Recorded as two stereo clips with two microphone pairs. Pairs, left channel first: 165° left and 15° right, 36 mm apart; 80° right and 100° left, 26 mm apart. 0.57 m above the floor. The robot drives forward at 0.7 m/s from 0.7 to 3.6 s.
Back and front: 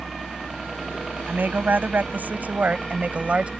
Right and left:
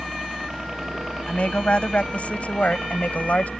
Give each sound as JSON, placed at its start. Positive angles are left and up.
{"t": 0.0, "sound": "a helicopter", "azimuth_deg": 60}
{"t": 1.3, "sound": "a woman speaking", "azimuth_deg": -45}